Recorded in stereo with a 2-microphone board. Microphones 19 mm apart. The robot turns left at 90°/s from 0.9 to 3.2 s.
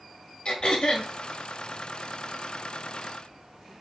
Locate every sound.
0.5 s throat clearing: 70° left (ahead or behind), 1.2 m; by 1.1 s 80° left, 1.2 m